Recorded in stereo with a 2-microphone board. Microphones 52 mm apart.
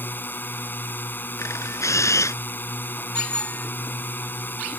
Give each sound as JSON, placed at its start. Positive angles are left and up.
{"t": 0.0, "sound": "a drone", "side_deg": 40}
{"t": 1.4, "sound": "a camera shutter", "side_deg": 75}
{"t": 3.1, "sound": "a bicycle bell", "side_deg": 15}